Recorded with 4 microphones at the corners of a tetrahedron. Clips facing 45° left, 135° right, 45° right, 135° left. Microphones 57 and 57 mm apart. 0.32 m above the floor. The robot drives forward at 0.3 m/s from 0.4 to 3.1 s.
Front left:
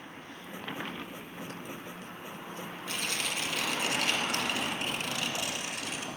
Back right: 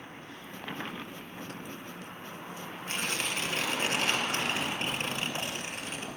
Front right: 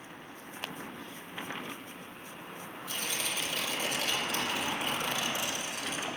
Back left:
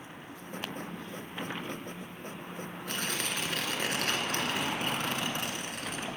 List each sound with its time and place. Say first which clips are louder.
2.9 s tearing paper: back right 2 dB, back left 2 dB; 170° left, 1.1 m